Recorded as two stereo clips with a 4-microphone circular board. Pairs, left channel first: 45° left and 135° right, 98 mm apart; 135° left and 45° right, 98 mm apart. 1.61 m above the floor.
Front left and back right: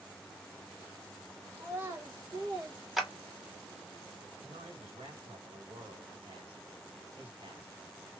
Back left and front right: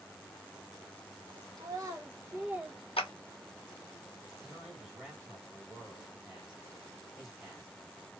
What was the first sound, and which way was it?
A child speaking, 75° right.